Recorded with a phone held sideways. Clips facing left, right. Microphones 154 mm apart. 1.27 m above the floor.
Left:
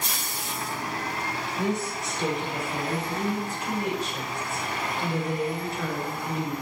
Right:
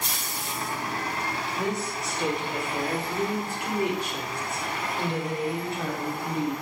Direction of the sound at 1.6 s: 75° right (ahead or behind).